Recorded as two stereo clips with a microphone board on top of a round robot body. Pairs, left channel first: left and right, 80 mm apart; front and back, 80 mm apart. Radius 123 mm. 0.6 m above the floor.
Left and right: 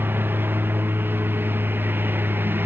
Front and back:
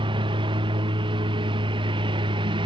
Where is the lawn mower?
160° right.